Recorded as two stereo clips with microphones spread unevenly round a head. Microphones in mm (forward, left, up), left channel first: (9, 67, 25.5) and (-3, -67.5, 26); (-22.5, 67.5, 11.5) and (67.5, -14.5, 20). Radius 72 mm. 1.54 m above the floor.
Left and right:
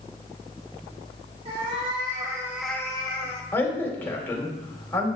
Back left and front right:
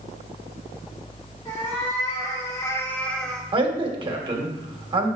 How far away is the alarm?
No alarm in this recording.